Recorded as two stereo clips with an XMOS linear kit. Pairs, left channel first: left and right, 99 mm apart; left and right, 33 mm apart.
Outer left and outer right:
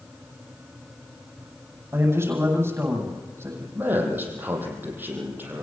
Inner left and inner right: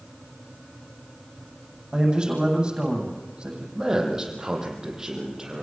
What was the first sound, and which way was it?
A man speaking, 25° right (ahead or behind).